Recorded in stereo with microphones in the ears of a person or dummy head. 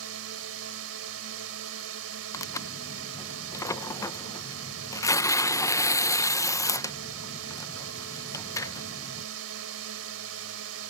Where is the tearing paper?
25° left (ahead or behind).